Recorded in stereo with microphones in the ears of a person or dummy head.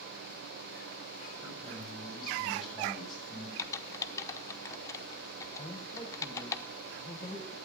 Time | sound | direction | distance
1.4 | a man speaking | 5° right (ahead or behind) | 8 m
3.6 | typing on a keyboard | 20° left (ahead or behind) | 0.7 m
5.6 | a man speaking | 20° left (ahead or behind) | 1.3 m